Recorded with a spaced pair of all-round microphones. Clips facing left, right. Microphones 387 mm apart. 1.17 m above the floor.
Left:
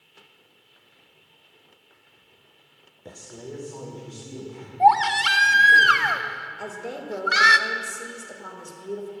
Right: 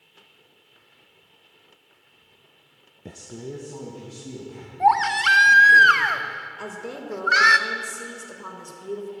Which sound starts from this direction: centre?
A woman speaking, at 6.6 s.